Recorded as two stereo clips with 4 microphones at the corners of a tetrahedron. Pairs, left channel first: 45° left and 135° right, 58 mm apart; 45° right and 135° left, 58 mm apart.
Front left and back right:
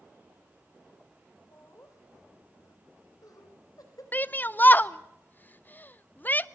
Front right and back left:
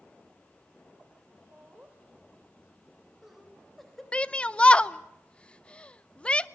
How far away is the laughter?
About 3.5 m.